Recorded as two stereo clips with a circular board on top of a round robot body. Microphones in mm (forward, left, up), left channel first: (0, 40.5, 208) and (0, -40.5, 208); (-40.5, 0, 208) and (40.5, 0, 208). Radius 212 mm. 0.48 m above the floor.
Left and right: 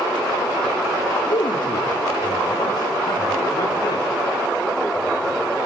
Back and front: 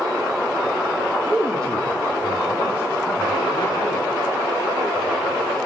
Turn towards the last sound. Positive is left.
turn(degrees=140)